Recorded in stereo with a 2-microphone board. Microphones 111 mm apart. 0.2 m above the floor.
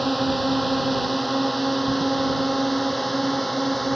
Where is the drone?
Centre (ahead or behind).